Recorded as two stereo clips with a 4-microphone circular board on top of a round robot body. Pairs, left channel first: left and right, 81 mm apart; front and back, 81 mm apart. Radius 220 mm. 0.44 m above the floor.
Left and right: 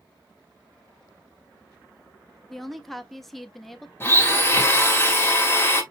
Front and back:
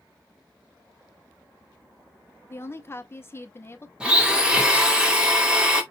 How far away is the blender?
About 1.4 m.